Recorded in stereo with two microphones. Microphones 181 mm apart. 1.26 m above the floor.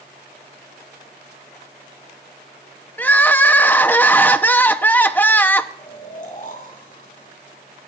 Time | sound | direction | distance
3.0 | crying | 10° left (ahead or behind) | 0.6 m
5.8 | snoring | 50° left (ahead or behind) | 3 m